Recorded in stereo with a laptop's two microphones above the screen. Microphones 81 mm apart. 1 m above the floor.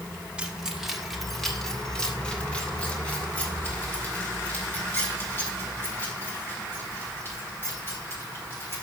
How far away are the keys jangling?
About 1.6 m.